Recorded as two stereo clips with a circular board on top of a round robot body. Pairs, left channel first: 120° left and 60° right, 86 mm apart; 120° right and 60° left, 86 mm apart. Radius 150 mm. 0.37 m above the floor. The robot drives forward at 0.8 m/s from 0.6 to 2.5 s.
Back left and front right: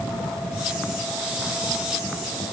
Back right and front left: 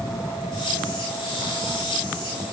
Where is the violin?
I don't hear a violin.